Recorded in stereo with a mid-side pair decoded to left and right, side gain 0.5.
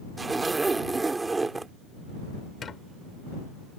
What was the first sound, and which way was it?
A zipper, 25° right.